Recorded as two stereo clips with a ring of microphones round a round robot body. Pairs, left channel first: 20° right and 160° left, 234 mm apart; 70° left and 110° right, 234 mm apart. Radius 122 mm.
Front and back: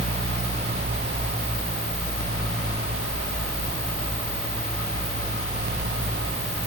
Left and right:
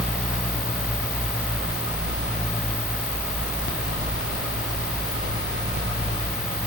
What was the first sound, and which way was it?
Only background noise.